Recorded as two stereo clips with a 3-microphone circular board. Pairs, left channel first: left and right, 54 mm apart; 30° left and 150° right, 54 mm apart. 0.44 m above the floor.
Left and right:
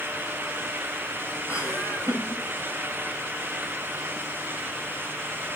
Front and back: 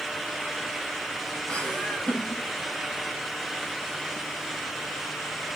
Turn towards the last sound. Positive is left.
turn(degrees=95)